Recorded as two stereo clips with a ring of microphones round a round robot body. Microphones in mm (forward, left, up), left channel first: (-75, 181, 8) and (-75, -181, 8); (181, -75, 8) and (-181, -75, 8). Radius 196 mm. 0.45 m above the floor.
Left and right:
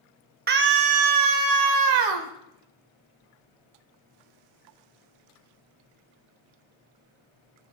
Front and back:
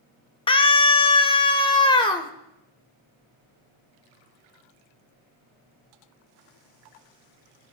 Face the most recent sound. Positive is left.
turn(degrees=-75)